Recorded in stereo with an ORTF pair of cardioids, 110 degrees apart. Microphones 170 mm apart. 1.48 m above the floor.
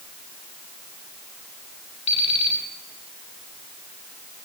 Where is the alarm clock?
35° left, 8.5 m.